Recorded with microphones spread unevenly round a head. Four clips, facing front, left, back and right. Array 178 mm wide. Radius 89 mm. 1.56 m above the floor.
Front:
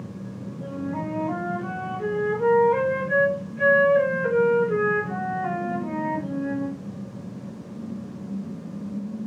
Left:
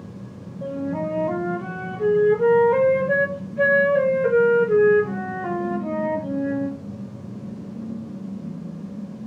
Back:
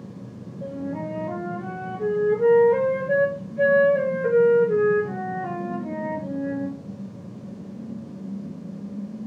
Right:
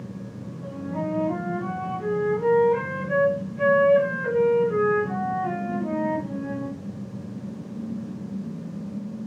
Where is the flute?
95° left, 1.9 m.